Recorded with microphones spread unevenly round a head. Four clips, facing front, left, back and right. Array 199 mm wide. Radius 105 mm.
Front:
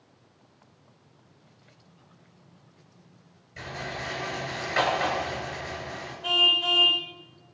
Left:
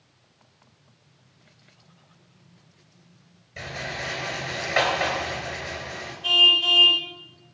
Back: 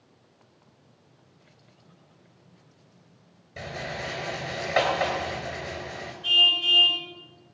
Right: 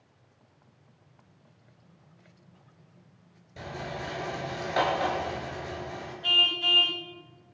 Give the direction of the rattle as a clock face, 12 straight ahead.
6 o'clock.